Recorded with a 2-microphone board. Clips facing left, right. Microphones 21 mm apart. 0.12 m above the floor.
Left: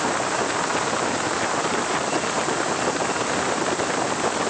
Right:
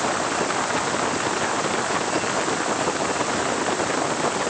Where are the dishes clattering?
No dishes clattering in this recording.